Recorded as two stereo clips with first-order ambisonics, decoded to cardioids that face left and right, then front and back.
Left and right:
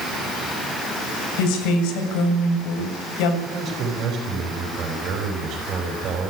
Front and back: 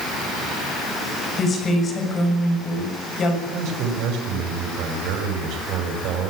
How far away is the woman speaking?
About 6.5 m.